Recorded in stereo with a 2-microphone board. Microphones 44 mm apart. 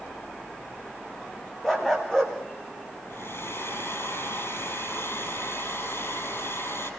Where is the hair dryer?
65° left (ahead or behind), 5 m.